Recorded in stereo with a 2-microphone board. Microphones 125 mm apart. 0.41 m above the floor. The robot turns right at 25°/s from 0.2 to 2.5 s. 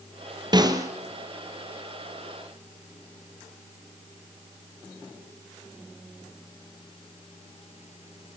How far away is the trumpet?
No trumpet in this recording.